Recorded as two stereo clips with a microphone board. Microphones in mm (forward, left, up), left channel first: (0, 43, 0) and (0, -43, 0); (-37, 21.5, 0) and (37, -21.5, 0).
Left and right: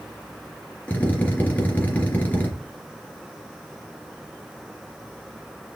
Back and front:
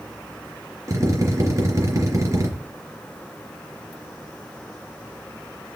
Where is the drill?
20° left, 3 m.